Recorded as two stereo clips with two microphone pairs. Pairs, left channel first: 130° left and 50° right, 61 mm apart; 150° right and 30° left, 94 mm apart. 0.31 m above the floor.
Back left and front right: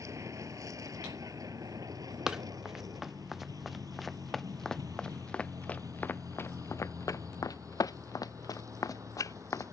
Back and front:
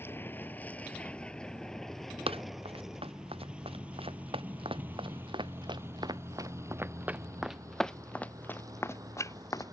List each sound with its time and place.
0.0 s a vehicle: 85° right; by 9.7 s 20° right
2.3 s running footsteps: 30° left; by 9.7 s 155° left